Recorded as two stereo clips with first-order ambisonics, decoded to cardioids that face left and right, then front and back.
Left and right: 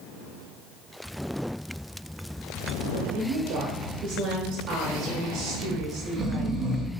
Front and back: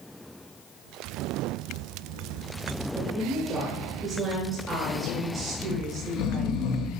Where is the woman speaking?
115° right, 2 m.